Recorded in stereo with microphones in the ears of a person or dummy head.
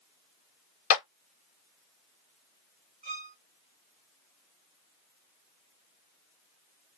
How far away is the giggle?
No giggle in this recording.